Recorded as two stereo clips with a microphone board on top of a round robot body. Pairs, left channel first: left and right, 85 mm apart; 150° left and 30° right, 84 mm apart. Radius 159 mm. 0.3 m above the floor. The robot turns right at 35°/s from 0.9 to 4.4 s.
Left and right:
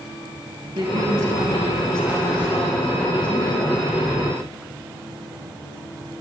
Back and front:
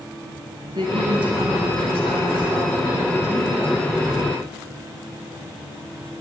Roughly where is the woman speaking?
Ahead right.